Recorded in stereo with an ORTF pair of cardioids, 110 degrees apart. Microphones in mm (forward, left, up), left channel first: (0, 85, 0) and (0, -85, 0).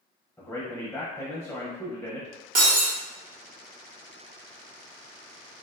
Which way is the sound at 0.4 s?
10° left.